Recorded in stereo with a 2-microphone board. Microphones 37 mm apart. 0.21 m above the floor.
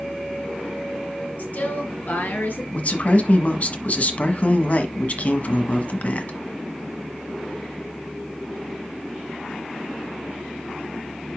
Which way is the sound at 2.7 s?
45° left (ahead or behind).